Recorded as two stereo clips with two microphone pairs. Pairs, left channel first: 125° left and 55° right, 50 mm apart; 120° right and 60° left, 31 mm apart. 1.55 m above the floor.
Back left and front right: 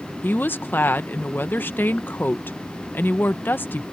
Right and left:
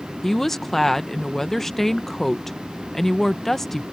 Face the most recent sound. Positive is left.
turn(degrees=170)